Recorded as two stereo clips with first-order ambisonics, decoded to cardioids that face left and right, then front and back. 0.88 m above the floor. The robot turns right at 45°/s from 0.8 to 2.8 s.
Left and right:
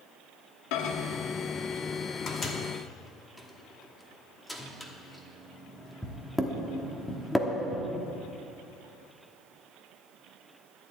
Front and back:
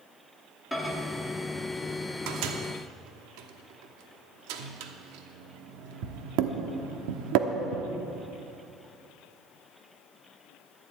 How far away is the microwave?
About 1.1 m.